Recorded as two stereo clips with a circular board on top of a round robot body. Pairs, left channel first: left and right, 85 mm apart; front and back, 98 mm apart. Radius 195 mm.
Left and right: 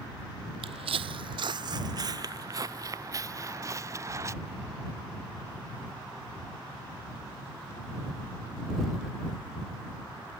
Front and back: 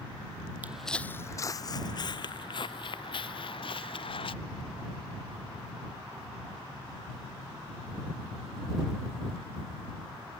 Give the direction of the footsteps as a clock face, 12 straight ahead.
4 o'clock.